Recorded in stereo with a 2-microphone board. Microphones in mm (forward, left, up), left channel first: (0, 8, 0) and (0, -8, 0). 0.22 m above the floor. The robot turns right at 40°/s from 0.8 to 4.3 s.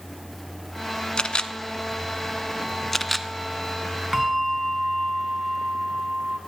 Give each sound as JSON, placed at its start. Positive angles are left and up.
{"t": 1.2, "sound": "a camera shutter", "side_deg": 65, "distance_m": 0.7}
{"t": 4.1, "sound": "a bell", "side_deg": -30, "distance_m": 1.8}